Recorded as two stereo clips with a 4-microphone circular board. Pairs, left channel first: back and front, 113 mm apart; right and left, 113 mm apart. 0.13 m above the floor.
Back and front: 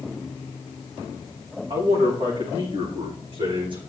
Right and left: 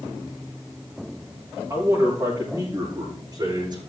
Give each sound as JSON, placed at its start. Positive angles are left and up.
{"t": 1.7, "sound": "a man speaking", "azimuth_deg": 30, "distance_m": 7.0}